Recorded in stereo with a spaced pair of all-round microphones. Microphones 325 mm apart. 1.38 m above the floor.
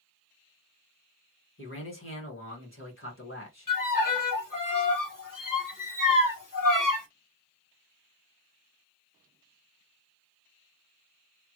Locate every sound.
1.6 s a man speaking: 40° left (ahead or behind), 1.9 m
3.7 s a violin: 75° left (ahead or behind), 1.1 m